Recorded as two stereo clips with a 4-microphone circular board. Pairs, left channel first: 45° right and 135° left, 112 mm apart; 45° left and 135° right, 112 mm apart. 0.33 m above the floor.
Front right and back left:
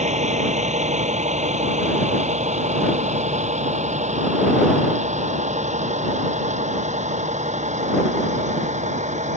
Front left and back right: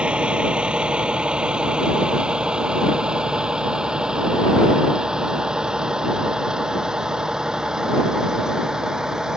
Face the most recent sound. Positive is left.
turn(degrees=140)